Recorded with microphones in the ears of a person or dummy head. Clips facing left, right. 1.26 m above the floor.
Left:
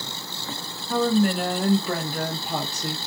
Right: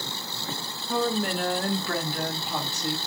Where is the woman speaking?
15° right (ahead or behind), 1.1 m; by 3.0 s 65° left (ahead or behind), 1.0 m.